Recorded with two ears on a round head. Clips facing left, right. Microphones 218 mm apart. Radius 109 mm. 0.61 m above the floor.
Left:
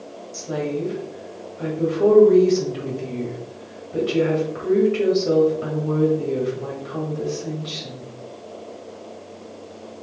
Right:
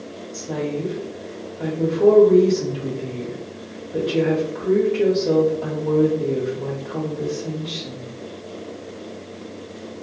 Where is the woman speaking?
10° left (ahead or behind), 1.4 m.